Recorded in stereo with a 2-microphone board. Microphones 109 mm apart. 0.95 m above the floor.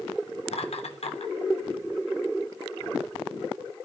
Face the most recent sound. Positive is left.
turn(degrees=75)  # may be behind; listen again after turning